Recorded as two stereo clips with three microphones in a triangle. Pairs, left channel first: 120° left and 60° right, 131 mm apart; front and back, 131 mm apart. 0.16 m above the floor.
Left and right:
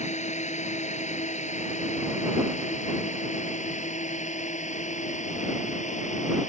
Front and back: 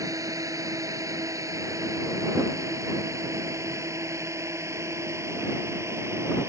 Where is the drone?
120° left; by 6.5 s 115° left.